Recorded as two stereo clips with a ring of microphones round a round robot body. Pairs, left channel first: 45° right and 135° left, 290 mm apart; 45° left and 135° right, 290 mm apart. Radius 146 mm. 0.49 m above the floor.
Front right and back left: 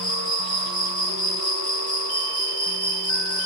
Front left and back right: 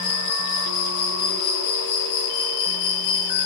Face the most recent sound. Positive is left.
turn(degrees=30)